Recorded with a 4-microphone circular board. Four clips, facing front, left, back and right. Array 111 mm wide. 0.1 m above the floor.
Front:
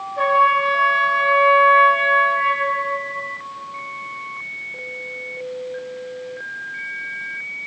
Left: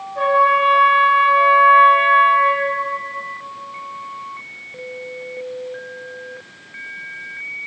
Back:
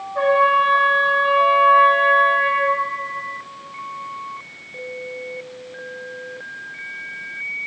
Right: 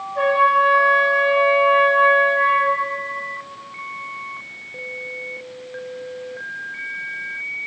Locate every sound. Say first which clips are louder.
0.1 s a trumpet: left 1 dB, back 1 dB; straight behind, 2.5 m